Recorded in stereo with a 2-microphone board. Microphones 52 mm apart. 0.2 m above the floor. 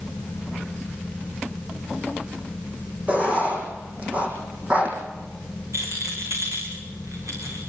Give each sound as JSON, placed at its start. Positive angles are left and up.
{"t": 3.1, "sound": "writing", "side_deg": -25, "distance_m": 6.5}
{"t": 5.7, "sound": "a rattle", "side_deg": -70, "distance_m": 7.5}